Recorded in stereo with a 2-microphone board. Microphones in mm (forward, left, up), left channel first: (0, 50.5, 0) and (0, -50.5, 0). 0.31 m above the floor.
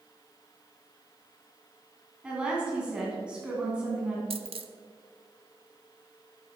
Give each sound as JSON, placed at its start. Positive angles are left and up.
{"t": 2.2, "sound": "a woman speaking", "side_deg": -10, "distance_m": 3.0}
{"t": 4.3, "sound": "a dropped coin", "side_deg": -70, "distance_m": 0.7}